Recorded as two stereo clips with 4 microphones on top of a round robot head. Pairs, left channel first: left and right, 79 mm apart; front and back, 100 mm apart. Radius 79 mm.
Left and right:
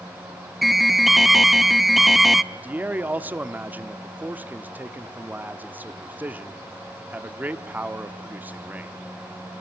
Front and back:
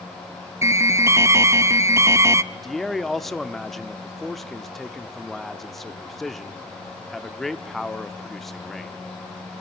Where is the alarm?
175° right, 0.8 m.